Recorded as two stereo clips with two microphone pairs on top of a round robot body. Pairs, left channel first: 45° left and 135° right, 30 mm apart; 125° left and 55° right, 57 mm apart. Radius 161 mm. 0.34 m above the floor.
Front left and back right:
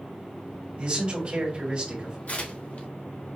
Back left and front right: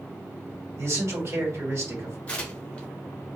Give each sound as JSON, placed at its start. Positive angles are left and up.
{"t": 0.8, "sound": "a man speaking", "azimuth_deg": -85, "distance_m": 1.9}
{"t": 2.3, "sound": "tearing paper", "azimuth_deg": 60, "distance_m": 1.4}